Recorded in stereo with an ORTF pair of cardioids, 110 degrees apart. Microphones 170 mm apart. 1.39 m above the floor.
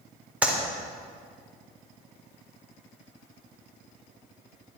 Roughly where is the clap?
Ahead.